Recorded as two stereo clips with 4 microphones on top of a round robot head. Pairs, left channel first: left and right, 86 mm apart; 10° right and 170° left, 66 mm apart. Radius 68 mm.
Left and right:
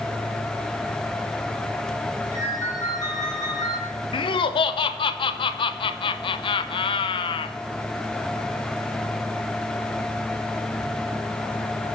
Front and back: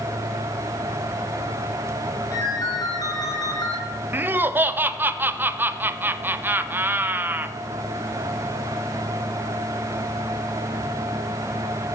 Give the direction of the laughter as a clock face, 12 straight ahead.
8 o'clock.